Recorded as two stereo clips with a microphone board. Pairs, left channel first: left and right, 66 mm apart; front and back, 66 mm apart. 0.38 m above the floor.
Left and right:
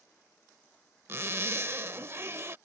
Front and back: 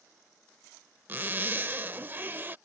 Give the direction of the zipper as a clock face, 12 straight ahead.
4 o'clock.